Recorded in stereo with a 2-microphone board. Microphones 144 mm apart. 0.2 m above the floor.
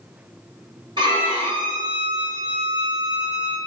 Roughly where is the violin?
Right.